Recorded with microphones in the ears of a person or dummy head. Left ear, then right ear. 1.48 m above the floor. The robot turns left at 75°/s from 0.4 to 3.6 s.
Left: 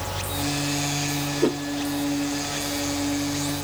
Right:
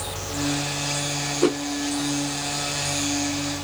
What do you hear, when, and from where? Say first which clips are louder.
1.4 s a whoosh: right 2 dB; 40° right (ahead or behind), 1.3 m; by 1.6 s 35° right (ahead or behind), 1.3 m